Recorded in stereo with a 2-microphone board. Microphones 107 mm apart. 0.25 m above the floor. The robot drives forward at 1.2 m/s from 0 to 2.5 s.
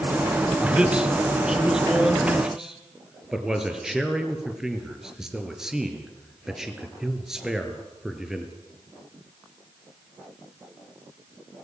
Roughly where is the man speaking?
Centre.